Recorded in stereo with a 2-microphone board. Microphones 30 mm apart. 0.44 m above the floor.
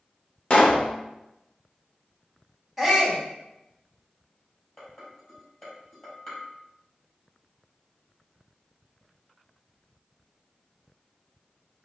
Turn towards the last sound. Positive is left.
turn(degrees=25)  # may be behind; listen again after turning